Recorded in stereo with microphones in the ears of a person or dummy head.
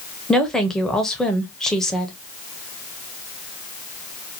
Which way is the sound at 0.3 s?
Centre (ahead or behind).